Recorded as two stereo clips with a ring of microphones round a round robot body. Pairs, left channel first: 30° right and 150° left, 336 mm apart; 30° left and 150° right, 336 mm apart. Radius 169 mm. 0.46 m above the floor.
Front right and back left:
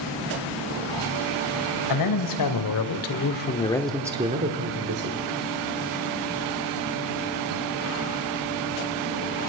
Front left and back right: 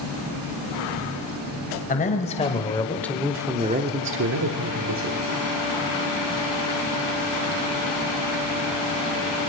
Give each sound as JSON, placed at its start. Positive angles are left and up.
{"t": 1.9, "sound": "a man speaking", "azimuth_deg": -35, "distance_m": 2.5}